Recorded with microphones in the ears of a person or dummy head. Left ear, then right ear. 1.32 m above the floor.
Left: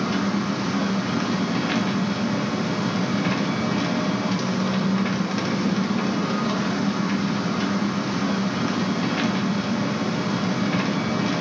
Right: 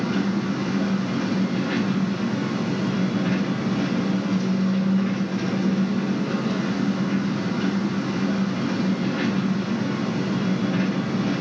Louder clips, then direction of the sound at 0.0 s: Left 1 dB; 55° left (ahead or behind).